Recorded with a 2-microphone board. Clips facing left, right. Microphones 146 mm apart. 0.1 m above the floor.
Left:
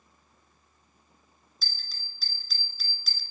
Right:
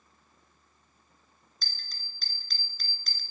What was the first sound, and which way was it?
A bell, 5° left (ahead or behind).